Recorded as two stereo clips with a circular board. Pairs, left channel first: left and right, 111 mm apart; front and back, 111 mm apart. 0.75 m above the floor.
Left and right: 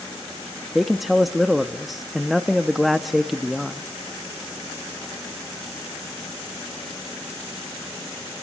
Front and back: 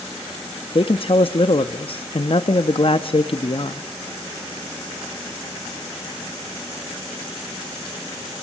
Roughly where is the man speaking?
Ahead.